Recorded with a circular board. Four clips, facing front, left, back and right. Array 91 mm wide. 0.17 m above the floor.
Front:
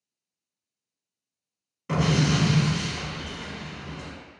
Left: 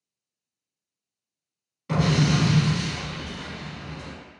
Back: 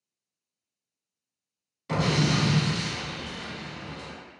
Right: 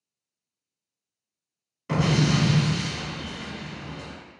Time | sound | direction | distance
1.9 | an explosion | 25° right | 1.6 m